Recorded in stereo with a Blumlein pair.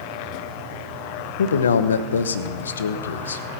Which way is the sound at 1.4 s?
70° left.